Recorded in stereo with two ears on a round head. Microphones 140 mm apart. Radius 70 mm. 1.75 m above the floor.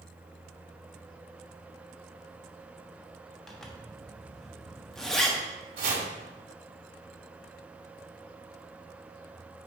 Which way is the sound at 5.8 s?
65° right (ahead or behind).